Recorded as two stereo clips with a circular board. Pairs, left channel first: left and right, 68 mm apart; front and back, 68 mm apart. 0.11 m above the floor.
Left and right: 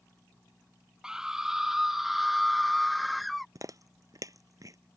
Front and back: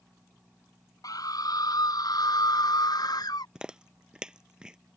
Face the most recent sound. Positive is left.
turn(degrees=-105)